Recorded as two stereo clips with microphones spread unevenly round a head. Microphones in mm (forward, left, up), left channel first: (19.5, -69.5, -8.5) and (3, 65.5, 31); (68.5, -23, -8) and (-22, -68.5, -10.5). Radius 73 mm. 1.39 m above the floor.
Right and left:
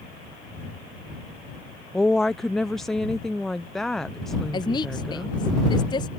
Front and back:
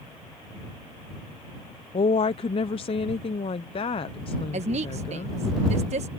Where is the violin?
I don't hear a violin.